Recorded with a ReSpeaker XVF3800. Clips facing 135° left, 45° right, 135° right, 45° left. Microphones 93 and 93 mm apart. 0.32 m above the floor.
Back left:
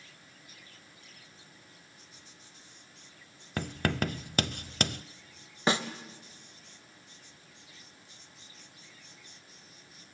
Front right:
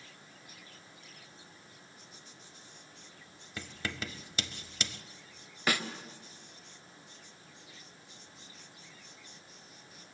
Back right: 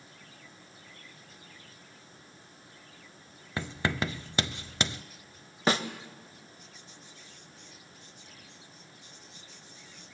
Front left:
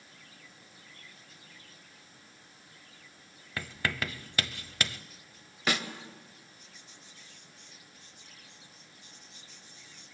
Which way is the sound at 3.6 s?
160° left.